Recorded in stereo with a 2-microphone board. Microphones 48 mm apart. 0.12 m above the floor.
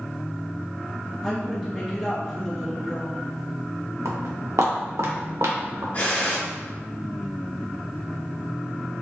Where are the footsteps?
75° right (ahead or behind), 1.1 m; by 5.8 s 80° right, 1.8 m.